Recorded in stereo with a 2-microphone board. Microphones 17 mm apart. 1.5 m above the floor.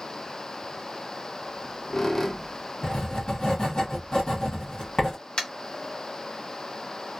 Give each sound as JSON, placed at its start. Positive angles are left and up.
{"t": 1.4, "sound": "a squeak", "side_deg": 30, "distance_m": 0.5}
{"t": 2.8, "sound": "writing", "side_deg": 50, "distance_m": 1.4}
{"t": 5.4, "sound": "tapping", "side_deg": 65, "distance_m": 0.8}